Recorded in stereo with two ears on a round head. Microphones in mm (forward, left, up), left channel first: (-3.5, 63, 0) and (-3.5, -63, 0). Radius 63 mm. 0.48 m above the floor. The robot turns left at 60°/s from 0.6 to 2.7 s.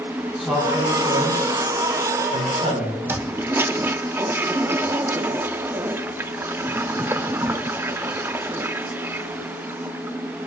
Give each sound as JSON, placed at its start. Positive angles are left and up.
{"t": 0.4, "sound": "a man speaking", "side_deg": -5, "distance_m": 7.0}
{"t": 3.1, "sound": "a toilet flushing", "side_deg": -15, "distance_m": 0.5}